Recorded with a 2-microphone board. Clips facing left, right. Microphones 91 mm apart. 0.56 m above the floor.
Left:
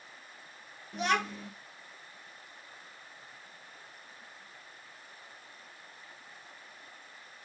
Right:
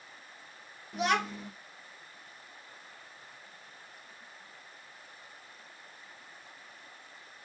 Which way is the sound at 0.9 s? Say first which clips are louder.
Right 1 dB; centre (ahead or behind).